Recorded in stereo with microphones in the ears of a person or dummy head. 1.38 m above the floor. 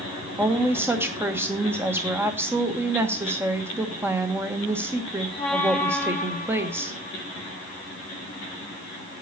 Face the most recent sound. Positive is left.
turn(degrees=-15)  # may be behind; listen again after turning